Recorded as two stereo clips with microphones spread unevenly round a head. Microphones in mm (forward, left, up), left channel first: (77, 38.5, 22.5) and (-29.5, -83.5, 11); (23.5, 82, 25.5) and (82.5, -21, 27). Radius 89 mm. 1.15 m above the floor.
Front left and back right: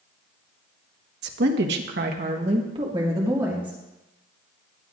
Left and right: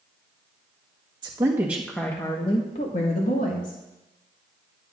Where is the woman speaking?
125° right, 1.5 m; by 3.8 s 145° left, 2.5 m.